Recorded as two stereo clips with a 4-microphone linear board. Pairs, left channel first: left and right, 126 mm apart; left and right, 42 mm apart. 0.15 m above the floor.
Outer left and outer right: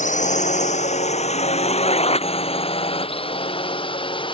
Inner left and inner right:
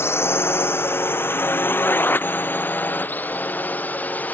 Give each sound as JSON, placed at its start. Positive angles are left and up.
{"t": 0.0, "sound": "a drone", "side_deg": 75}